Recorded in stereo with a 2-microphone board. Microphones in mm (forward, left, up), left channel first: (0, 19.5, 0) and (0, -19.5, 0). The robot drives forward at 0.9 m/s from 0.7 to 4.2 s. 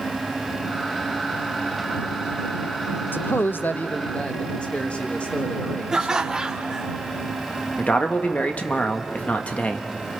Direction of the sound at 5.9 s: 15° right (ahead or behind).